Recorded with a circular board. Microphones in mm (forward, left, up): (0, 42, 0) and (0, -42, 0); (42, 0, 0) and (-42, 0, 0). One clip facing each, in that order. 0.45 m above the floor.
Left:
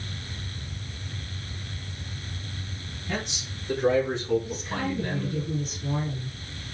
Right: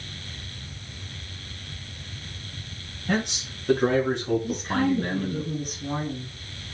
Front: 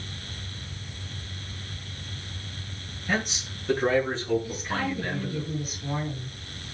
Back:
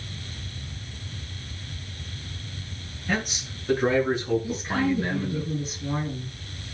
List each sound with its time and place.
3.1 s a man speaking: 90° right, 6.5 m; by 5.4 s 110° right, 7.5 m
4.4 s a woman speaking: 120° right, 7.5 m